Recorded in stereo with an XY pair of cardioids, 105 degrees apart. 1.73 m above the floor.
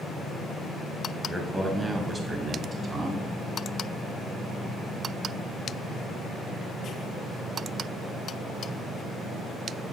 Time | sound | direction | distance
1.3 | a man speaking | 10° right | 1.6 m